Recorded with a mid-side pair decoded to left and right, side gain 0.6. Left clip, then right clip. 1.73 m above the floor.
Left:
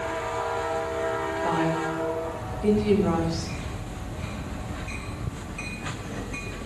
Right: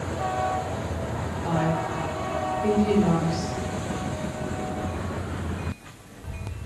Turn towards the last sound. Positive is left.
turn(degrees=20)